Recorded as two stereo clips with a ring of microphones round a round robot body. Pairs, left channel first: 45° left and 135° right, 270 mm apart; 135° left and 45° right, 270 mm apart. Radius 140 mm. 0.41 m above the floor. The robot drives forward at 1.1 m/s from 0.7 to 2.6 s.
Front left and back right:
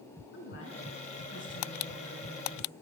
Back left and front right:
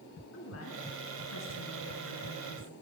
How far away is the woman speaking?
About 4 m.